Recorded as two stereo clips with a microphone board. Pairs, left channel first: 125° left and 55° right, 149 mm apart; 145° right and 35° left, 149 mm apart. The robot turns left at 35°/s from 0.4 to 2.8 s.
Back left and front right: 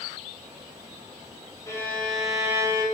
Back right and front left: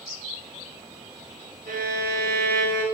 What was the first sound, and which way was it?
A violin, 55° left.